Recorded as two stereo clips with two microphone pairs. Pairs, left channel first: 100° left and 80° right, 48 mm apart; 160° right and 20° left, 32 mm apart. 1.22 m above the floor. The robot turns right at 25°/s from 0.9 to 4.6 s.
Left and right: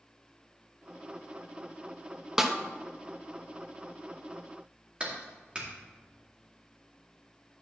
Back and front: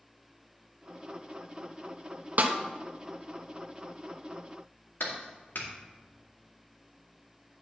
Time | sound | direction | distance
2.4 | a snare drum | 5° right | 0.7 m
5.0 | a clap | 150° right | 2 m